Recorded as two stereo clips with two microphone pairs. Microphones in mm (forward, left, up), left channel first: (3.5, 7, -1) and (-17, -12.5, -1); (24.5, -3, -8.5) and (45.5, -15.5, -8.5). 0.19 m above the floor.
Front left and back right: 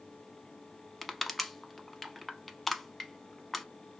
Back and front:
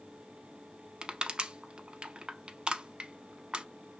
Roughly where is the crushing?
Ahead right.